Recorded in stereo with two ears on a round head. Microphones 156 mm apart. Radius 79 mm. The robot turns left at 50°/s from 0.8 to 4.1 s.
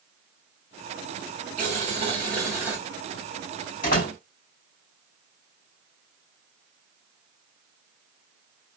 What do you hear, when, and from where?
1.6 s boiling: 110° right, 1.1 m; by 2.8 s 170° right, 1.1 m
3.8 s a door slam: 50° left (ahead or behind), 2 m; by 4.2 s 60° left (ahead or behind), 2 m